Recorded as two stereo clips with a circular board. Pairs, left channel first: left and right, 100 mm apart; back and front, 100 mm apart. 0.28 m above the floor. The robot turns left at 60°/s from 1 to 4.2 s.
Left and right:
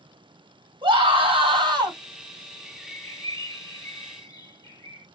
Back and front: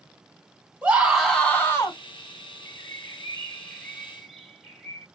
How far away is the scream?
About 2.5 m.